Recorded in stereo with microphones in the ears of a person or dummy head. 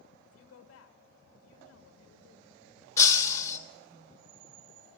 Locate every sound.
0.2 s a woman speaking: 80° left, 2.5 m
3.0 s breaking glass: 20° left (ahead or behind), 1.3 m